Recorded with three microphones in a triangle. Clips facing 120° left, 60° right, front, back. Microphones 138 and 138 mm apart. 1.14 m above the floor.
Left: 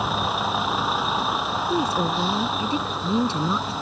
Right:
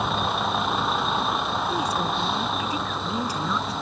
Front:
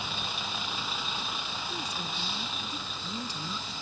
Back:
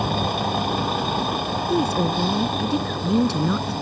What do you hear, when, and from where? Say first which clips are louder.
0.0 s a vehicle: even, back 15 dB; 150° right
1.7 s a woman speaking: left 6 dB, back 21 dB; straight behind